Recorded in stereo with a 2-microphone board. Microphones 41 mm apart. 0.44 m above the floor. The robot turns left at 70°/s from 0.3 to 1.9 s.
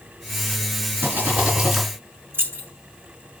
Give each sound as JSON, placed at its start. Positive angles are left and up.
{"t": 1.0, "sound": "a rattle", "azimuth_deg": -120, "distance_m": 3.0}
{"t": 2.3, "sound": "keys jangling", "side_deg": -70, "distance_m": 2.0}